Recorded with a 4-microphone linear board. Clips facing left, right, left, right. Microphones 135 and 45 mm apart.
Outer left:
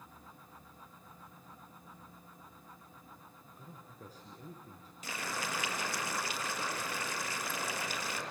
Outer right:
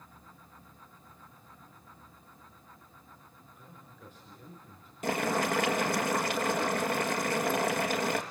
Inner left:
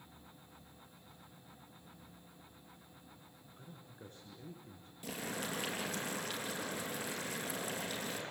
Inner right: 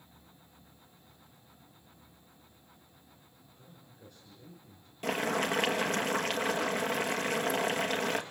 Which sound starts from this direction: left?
A man speaking, at 3.6 s.